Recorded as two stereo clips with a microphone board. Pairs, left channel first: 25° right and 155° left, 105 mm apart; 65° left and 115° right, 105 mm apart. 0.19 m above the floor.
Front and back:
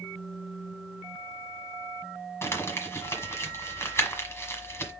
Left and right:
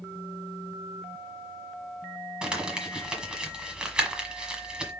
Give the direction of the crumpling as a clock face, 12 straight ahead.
1 o'clock.